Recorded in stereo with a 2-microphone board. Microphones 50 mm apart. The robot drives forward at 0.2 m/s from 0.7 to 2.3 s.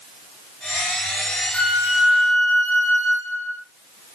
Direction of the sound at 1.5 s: 30° left (ahead or behind).